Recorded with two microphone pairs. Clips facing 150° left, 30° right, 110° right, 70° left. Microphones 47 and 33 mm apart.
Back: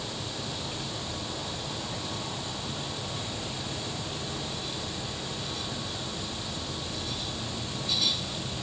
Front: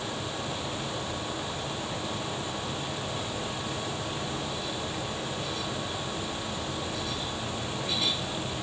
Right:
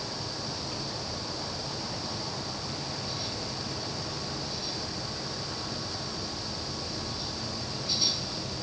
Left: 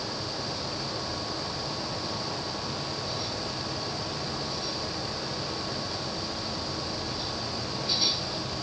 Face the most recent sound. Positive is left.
No sound to turn to.